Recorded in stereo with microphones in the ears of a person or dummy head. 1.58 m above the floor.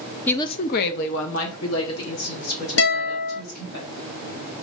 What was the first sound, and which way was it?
A woman speaking, 10° left (ahead or behind).